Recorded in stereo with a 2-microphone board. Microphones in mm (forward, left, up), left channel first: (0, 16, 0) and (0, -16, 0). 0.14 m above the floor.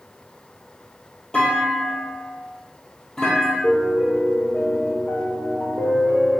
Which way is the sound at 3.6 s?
55° left (ahead or behind).